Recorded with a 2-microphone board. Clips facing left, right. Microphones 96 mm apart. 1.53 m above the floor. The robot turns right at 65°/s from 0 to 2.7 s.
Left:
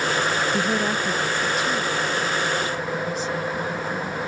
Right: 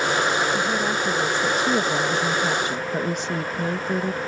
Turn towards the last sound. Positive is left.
turn(degrees=-65)